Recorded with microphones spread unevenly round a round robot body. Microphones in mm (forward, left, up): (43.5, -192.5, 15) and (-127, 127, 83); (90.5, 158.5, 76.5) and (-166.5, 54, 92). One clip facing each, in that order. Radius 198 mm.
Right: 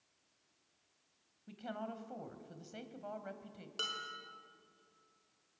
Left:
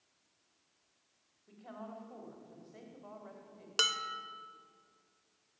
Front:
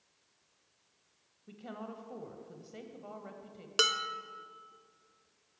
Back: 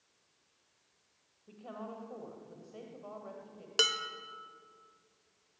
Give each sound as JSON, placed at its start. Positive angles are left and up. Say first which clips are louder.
{"t": 1.5, "sound": "a woman speaking", "louder": "right 4 dB, front 1 dB", "azimuth_deg": -40, "distance_m": 2.5}
{"t": 3.8, "sound": "dishes clattering", "louder": "left 10 dB, front 1 dB", "azimuth_deg": 100, "distance_m": 1.5}